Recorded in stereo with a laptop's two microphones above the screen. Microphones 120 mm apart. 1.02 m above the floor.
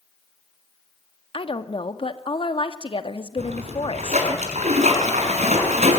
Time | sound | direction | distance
1.3 | a woman speaking | 50° left (ahead or behind) | 1.9 m
3.4 | a splash | 80° right | 6.5 m